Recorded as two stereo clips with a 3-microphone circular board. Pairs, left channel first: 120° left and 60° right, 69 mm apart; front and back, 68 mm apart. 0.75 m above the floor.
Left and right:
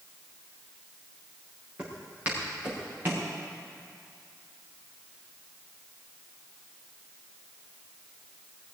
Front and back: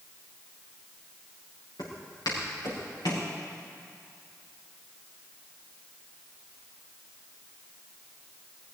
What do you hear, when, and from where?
1.8 s footsteps: 5° left, 6.5 m; by 3.3 s straight ahead, 6 m